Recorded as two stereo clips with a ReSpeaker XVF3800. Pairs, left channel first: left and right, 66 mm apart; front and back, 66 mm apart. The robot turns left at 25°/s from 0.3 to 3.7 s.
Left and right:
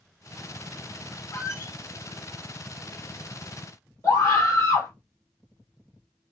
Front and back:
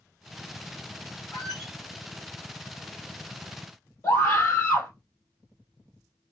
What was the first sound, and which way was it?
A squeak, 95° left.